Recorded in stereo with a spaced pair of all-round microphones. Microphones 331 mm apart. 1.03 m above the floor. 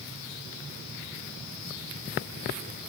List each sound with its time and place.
Only background noise.